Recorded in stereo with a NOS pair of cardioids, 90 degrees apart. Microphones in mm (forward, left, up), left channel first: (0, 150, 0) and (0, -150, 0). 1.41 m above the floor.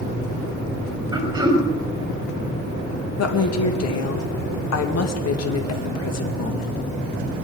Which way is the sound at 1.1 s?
15° right.